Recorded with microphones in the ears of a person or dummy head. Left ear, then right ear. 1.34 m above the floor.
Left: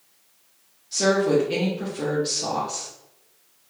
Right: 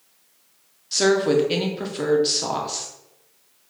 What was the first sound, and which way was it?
A woman speaking, 30° right (ahead or behind).